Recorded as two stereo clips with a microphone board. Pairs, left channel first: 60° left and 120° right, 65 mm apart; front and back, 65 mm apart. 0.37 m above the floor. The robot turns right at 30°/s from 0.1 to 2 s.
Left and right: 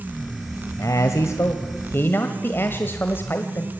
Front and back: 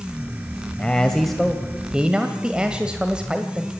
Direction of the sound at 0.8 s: 70° left.